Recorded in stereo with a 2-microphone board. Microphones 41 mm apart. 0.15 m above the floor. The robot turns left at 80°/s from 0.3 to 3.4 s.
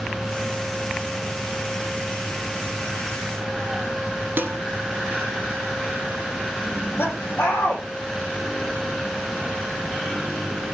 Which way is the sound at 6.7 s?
70° left (ahead or behind).